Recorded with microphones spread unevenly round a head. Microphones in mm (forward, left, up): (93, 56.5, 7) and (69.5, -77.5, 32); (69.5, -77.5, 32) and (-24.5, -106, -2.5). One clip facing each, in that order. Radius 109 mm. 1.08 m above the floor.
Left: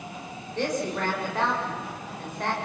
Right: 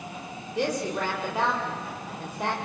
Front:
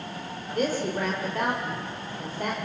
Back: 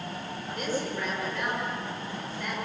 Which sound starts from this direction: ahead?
A woman speaking, at 0.6 s.